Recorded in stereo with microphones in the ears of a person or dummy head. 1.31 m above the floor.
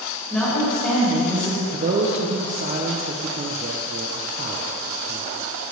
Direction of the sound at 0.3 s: 5° left (ahead or behind).